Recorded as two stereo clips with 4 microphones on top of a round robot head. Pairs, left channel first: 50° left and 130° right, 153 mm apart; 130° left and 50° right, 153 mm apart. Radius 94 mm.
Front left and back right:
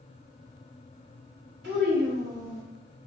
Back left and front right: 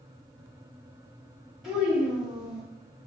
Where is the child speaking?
135° right, 1.6 m.